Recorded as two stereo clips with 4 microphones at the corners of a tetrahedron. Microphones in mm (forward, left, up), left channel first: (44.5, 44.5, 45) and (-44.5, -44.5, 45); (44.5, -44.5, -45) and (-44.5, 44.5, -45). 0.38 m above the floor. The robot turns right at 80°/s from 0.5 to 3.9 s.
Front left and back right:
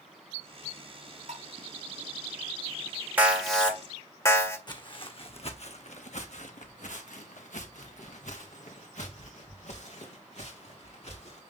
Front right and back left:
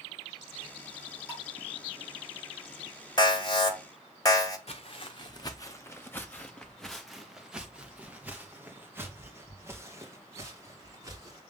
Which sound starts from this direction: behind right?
Dishes clattering, at 1.3 s.